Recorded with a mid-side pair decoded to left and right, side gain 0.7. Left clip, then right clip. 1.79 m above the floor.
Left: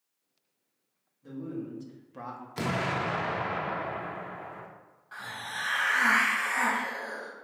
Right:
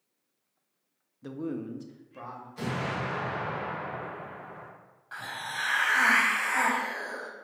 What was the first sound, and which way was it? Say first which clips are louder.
A man speaking: right 3 dB; 65° right.